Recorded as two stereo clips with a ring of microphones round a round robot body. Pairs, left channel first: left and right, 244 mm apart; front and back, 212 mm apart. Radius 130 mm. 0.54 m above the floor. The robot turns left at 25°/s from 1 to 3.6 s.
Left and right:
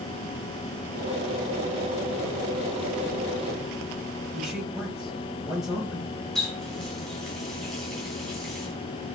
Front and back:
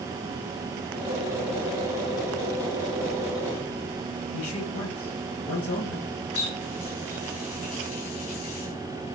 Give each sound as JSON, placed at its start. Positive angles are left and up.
{"t": 4.3, "sound": "a man speaking", "azimuth_deg": 0, "distance_m": 4.0}
{"t": 6.3, "sound": "a running tap", "azimuth_deg": 0, "distance_m": 3.5}